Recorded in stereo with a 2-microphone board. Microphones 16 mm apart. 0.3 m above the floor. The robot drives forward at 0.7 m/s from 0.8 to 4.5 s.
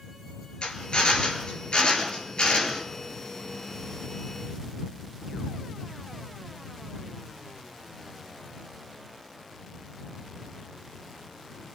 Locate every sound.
0.6 s a drill: 75° left (ahead or behind), 4.5 m; by 2.8 s 60° left (ahead or behind), 5 m